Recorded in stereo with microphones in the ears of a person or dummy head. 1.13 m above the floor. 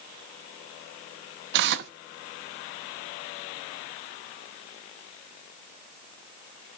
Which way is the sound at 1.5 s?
65° right (ahead or behind).